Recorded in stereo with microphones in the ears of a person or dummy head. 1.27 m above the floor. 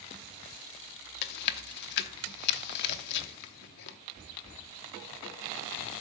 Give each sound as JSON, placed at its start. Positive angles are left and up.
{"t": 1.2, "sound": "chewing", "side_deg": 60, "distance_m": 0.8}